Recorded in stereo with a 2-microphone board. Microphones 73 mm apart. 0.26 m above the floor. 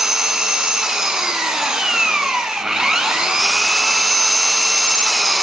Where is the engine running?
10° right (ahead or behind), 0.7 m.